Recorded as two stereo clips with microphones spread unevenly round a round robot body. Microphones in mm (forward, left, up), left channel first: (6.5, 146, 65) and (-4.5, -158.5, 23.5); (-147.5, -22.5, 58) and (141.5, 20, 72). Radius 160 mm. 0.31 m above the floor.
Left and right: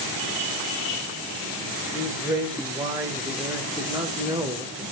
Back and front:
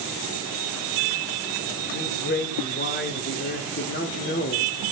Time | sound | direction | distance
1.9 | a man speaking | 155° right | 1.3 m